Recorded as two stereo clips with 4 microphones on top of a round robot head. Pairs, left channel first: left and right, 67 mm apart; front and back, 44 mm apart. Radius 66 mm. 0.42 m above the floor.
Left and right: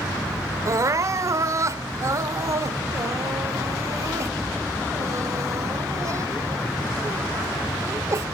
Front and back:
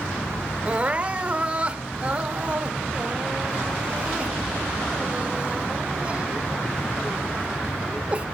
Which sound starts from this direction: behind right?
Crying, at 0.7 s.